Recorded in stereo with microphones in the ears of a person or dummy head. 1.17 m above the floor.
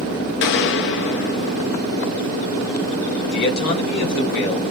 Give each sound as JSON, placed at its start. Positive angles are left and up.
{"t": 0.4, "sound": "a gunshot", "side_deg": 60, "distance_m": 0.6}
{"t": 3.3, "sound": "a man speaking", "side_deg": 50, "distance_m": 2.0}